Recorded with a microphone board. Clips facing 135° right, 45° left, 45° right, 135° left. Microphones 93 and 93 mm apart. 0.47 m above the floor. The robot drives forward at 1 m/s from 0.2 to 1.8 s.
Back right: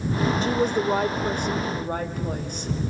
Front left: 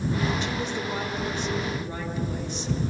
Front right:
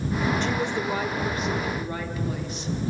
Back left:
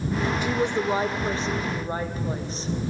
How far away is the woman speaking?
About 0.9 m.